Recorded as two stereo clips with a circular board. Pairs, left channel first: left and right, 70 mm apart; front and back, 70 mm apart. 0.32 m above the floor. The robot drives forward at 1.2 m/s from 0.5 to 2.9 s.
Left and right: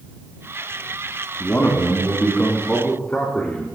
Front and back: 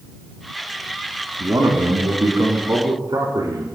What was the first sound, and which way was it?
A man speaking, 145° left.